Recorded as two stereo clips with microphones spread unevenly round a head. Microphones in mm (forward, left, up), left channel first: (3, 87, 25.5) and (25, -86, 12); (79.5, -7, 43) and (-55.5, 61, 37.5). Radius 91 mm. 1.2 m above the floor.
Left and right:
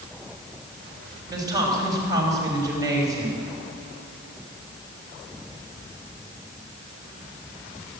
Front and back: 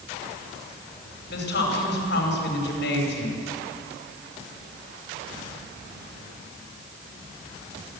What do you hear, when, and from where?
1.3 s a woman speaking: 10° right, 5.5 m